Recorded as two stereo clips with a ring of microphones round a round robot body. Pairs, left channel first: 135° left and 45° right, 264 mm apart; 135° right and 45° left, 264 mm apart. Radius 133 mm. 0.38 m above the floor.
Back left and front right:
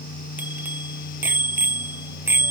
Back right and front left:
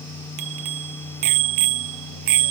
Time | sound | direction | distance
0.4 | a bicycle bell | 40° left | ?